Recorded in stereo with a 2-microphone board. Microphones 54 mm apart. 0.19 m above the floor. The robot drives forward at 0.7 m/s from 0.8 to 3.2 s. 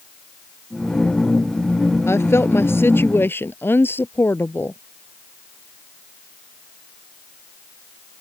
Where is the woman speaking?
55° left (ahead or behind); by 4.8 s 45° left (ahead or behind).